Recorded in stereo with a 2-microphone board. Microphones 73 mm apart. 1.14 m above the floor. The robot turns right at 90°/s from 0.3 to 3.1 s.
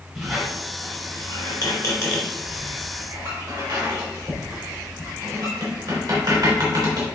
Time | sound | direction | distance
0.1 | a squeak | 5° right (ahead or behind) | 3 m